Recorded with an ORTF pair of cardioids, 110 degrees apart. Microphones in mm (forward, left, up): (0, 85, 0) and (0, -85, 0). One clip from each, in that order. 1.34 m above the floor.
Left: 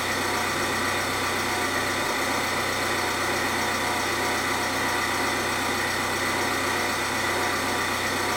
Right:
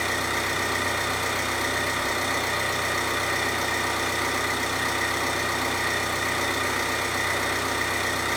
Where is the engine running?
15° right, 1.2 m.